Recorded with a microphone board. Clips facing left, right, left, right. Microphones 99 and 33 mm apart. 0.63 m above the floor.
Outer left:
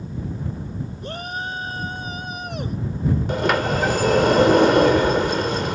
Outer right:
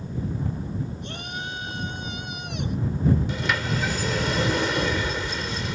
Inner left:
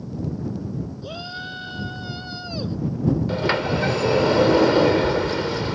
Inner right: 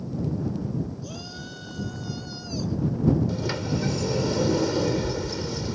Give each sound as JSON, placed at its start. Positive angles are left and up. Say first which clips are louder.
{"t": 1.0, "sound": "a shout", "louder": "outer left 5 dB, inner left 6 dB", "side_deg": 40}
{"t": 3.3, "sound": "a sliding door", "louder": "outer left 7 dB, inner left 6 dB", "side_deg": 50}